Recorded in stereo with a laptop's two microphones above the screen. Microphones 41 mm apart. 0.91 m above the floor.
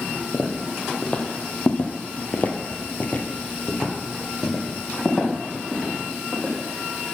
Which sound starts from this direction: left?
Footsteps, at 0.3 s.